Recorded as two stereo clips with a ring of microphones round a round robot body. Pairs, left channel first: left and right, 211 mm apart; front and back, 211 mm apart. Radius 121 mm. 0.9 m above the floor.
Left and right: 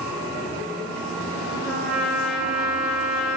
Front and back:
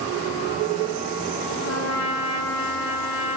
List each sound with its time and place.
1.6 s a trumpet: straight ahead, 2.5 m